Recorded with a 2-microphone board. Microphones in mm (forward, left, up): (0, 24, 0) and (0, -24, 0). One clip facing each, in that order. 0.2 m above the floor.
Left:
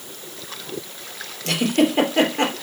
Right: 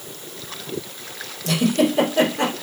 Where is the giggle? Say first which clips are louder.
Even; 50° left (ahead or behind), 3.5 m.